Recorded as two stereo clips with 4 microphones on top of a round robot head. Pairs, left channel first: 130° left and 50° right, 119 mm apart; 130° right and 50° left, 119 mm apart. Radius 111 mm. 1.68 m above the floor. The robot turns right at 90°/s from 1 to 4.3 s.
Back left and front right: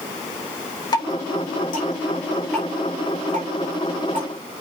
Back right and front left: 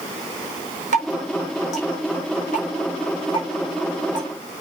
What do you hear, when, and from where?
0.9 s dripping: 70° left, 6.5 m; by 4.3 s 5° left, 6.5 m